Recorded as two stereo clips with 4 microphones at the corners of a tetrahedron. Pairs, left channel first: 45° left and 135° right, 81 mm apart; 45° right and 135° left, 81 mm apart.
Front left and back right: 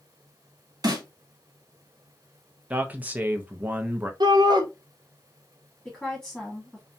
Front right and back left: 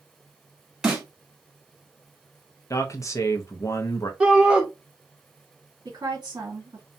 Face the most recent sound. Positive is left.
turn(degrees=120)